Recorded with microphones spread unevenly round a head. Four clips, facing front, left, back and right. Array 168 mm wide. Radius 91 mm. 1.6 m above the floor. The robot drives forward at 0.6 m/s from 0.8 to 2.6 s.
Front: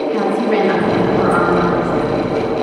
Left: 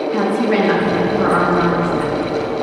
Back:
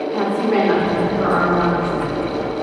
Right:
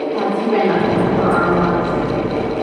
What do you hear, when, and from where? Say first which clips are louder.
0.1 s a woman speaking: left 1 dB, front 1 dB; 60° left, 3.5 m; by 2.1 s 75° left, 3.5 m